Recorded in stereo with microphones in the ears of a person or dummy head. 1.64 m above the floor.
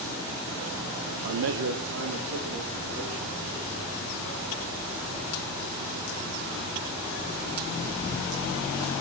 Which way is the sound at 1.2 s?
60° right (ahead or behind).